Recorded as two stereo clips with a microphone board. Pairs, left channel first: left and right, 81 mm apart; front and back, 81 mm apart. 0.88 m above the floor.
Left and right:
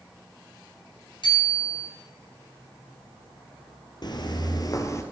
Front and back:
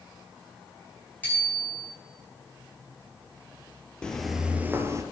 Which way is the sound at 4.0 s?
80° left.